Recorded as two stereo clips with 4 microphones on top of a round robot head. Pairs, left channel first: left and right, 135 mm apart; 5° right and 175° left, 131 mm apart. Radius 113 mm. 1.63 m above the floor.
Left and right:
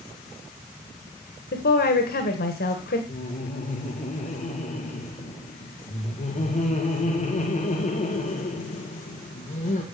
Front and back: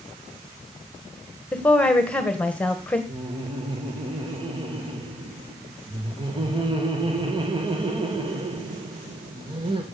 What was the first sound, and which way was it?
A woman speaking, 75° left.